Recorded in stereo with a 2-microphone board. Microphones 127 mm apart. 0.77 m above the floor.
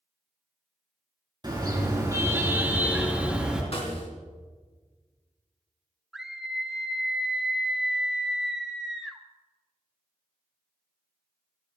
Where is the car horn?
35° right (ahead or behind), 3.5 m; by 3.6 s 5° right (ahead or behind), 3.5 m.